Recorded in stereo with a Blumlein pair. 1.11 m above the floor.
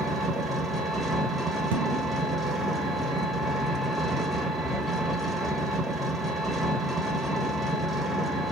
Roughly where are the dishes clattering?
Ahead right.